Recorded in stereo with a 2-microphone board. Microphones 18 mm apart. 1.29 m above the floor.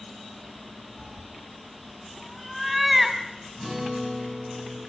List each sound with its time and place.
1.0 s a cat meowing: 20° left (ahead or behind), 3 m; by 3.2 s 10° right (ahead or behind), 2 m
3.6 s a guitar: 10° right (ahead or behind), 8.5 m